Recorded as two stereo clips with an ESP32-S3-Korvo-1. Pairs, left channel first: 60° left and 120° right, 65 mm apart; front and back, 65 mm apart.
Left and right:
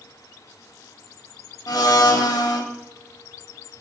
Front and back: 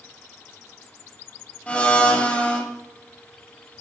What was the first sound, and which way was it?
A blender, 70° left.